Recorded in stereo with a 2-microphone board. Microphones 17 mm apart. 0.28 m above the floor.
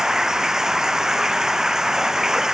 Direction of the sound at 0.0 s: 35° right (ahead or behind).